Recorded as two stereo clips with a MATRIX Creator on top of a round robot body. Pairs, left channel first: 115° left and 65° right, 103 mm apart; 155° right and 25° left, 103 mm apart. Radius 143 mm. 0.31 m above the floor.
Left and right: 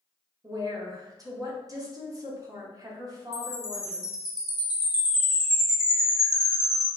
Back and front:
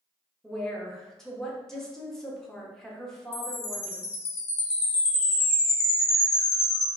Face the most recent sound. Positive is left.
turn(degrees=-150)